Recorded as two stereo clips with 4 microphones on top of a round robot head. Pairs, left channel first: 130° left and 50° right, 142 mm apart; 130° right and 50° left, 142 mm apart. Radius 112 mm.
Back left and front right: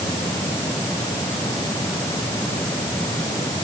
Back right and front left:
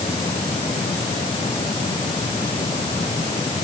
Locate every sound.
Only background noise.